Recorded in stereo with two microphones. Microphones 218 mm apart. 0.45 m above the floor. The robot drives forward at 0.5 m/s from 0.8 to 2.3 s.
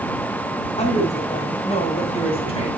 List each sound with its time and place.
0.8 s a woman speaking: 30° left (ahead or behind), 4 m; by 2.7 s 25° left (ahead or behind), 5 m